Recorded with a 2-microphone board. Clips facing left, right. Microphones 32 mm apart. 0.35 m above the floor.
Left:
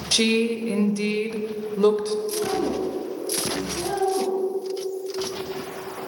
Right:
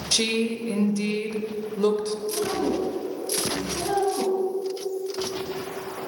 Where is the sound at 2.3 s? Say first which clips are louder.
Left 1 dB; 10° right (ahead or behind), 3 m.